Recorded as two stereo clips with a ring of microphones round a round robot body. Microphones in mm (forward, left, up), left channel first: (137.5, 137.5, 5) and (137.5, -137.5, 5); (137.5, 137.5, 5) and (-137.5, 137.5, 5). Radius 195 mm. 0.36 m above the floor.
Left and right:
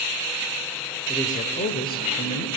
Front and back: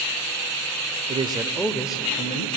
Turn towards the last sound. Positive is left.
turn(degrees=45)